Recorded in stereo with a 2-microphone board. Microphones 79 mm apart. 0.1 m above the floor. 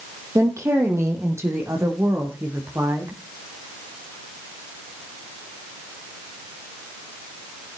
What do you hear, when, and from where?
0.3 s a woman speaking: 40° right (ahead or behind), 3 m; by 3.2 s 35° right (ahead or behind), 5 m